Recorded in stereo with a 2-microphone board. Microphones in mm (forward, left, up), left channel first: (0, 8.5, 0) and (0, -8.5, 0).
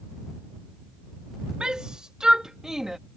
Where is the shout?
60° right (ahead or behind); by 3.0 s 25° right (ahead or behind).